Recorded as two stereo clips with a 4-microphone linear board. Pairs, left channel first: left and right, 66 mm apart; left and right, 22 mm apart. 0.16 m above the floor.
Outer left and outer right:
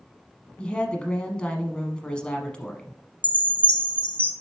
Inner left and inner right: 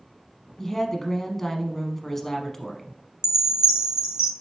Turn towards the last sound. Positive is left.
turn(degrees=-30)  # may be behind; listen again after turning